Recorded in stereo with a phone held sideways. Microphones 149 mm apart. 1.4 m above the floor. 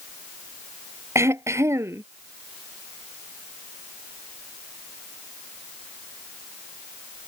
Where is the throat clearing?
20° right (ahead or behind).